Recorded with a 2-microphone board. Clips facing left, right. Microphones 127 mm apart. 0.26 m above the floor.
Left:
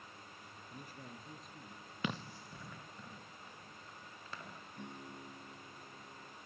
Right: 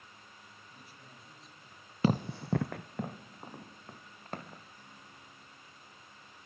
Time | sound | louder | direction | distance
0.7 | a man speaking | left 8 dB | 50° left (ahead or behind) | 5 m
2.0 | running footsteps | right 12 dB | 35° right (ahead or behind) | 0.5 m
4.8 | a guitar | left 7 dB | 70° left (ahead or behind) | 4.5 m